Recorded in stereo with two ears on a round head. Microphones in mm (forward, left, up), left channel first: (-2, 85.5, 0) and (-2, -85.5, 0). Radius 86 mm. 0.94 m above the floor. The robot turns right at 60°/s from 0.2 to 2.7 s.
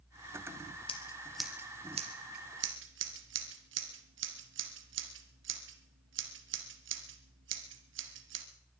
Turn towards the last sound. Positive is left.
turn(degrees=-70)  # may be behind; listen again after turning